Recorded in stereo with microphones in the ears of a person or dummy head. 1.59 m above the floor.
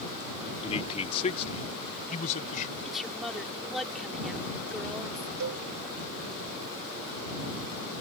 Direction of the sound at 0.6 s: 30° left (ahead or behind).